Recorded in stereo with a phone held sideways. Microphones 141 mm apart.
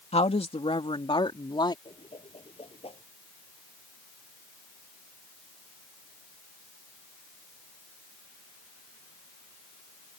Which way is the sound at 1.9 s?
40° left (ahead or behind).